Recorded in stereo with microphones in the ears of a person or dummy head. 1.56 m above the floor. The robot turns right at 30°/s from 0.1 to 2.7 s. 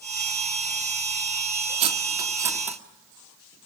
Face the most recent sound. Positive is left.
turn(degrees=-10)  # may be behind; listen again after turning